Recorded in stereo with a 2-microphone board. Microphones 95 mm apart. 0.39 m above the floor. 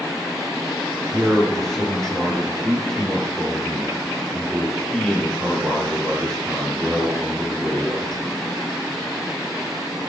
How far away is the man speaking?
About 7 m.